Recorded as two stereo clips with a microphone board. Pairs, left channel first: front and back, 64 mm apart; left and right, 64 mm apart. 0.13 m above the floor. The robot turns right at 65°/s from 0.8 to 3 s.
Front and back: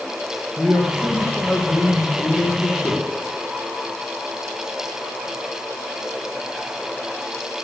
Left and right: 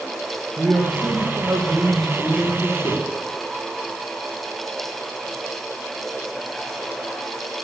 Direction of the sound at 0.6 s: 75° right.